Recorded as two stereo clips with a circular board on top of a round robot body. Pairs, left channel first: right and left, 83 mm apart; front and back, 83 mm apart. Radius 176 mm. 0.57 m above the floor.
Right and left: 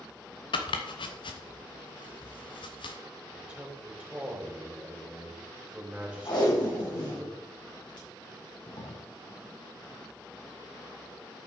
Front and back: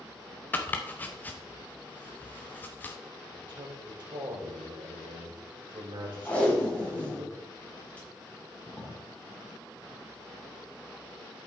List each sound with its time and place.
0.5 s chopping: 70° right, 0.6 m
3.3 s a man speaking: 165° left, 3.5 m
6.2 s tape being pulled: 70° right, 5 m